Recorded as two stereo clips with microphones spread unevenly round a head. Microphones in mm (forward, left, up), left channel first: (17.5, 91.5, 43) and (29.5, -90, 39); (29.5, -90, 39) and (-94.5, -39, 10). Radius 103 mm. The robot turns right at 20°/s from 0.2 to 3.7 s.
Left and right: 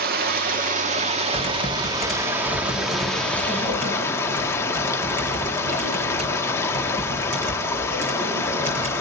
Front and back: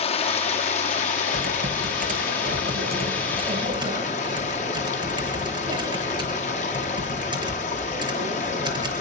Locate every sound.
0.0 s running water: 50° right, 1.3 m; by 9.0 s 20° left, 1.3 m
1.3 s typing on a keyboard: 170° left, 7 m; by 9.0 s 145° right, 7 m